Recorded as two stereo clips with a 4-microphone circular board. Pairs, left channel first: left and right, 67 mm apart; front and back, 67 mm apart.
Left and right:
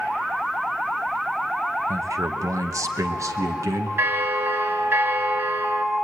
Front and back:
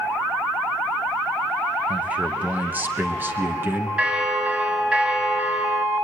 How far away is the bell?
About 1.8 m.